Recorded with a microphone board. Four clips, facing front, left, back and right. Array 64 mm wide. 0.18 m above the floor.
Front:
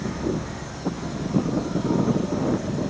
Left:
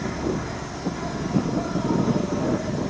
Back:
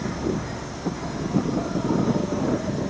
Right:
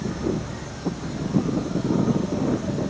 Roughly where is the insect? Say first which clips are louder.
Even, even; behind left.